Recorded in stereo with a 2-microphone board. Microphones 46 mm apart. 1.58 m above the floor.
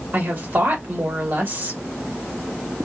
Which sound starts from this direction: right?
A woman speaking, at 0.1 s.